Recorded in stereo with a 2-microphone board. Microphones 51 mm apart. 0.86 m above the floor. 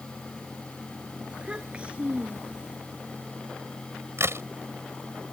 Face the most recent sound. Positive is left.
turn(degrees=-60)  # may be behind; listen again after turning